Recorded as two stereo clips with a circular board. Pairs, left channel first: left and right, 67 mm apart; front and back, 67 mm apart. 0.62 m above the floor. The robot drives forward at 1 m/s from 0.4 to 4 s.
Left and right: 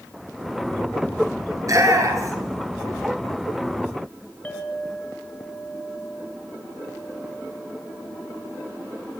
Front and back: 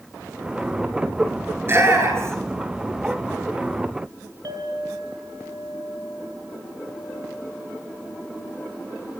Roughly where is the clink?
Behind.